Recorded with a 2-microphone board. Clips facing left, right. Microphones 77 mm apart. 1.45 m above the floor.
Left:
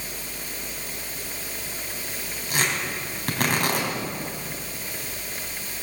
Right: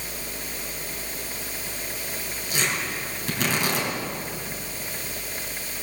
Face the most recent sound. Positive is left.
turn(degrees=55)  # may be behind; listen again after turning